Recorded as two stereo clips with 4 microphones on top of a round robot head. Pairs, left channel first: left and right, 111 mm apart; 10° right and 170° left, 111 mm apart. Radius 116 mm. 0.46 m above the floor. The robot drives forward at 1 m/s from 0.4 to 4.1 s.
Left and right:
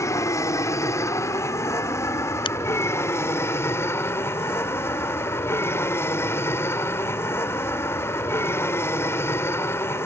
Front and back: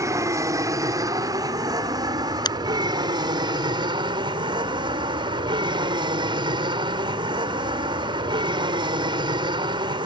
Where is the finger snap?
40° left.